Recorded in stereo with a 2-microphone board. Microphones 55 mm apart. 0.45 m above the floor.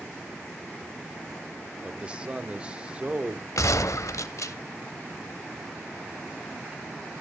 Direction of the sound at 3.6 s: 85° left.